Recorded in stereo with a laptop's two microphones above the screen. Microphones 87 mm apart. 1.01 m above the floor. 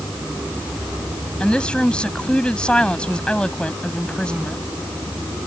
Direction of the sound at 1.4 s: 10° left (ahead or behind).